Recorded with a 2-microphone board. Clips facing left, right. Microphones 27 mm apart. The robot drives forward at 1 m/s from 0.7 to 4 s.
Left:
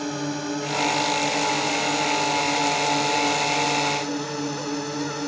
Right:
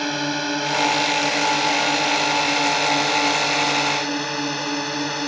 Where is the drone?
45° right (ahead or behind); by 5.3 s 40° right (ahead or behind).